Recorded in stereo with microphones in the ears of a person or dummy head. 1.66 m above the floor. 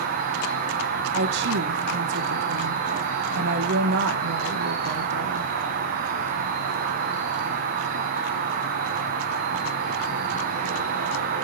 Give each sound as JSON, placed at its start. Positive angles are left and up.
{"t": 0.0, "sound": "an insect", "side_deg": -45, "distance_m": 0.9}
{"t": 1.1, "sound": "a woman speaking", "side_deg": -65, "distance_m": 1.3}